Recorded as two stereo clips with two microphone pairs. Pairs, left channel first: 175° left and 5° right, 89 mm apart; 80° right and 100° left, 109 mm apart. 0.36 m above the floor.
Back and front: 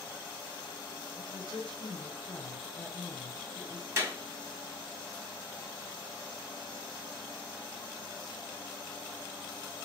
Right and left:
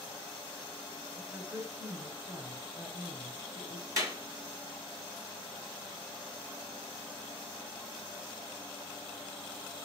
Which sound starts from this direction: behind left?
A woman speaking, at 1.2 s.